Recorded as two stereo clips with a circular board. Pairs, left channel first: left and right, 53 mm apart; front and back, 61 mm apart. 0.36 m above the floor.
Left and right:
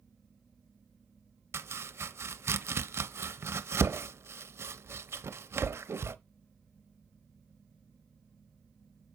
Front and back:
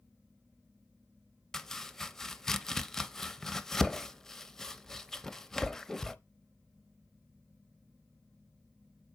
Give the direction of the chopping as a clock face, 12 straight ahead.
3 o'clock.